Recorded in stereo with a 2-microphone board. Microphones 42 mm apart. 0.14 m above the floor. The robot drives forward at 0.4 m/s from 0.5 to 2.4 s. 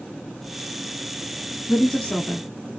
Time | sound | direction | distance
1.7 | a woman speaking | 25° left (ahead or behind) | 1.2 m